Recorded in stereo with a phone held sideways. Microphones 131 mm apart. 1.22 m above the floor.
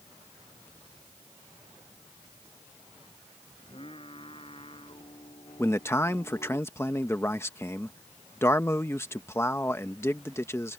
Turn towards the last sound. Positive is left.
turn(degrees=20)  # may be behind; listen again after turning